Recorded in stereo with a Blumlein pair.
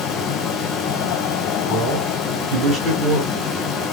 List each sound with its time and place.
0.0 s a fan: 25° left, 0.7 m
1.7 s a man speaking: 10° right, 2 m